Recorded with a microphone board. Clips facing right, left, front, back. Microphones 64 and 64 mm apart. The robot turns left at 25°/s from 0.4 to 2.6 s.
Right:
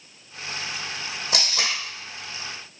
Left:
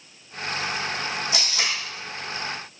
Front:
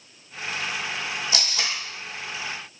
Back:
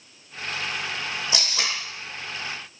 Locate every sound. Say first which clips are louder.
1.3 s tape being pulled: even, back 1 dB; 125° right, 3.5 m; by 1.8 s 135° right, 3.5 m